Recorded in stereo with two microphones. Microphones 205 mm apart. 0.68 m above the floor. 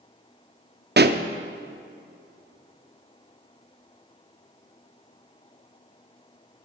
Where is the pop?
55° right (ahead or behind), 0.5 m.